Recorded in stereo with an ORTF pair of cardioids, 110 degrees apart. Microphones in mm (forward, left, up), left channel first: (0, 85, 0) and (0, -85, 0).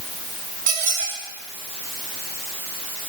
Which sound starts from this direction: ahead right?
A squeak, at 0.7 s.